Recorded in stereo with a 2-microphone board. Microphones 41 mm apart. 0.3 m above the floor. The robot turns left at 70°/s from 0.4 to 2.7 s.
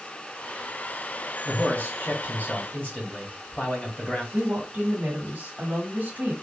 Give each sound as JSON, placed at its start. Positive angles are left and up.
{"t": 1.4, "sound": "a man speaking", "azimuth_deg": 135, "distance_m": 2.5}
{"t": 4.3, "sound": "a woman speaking", "side_deg": -45, "distance_m": 1.7}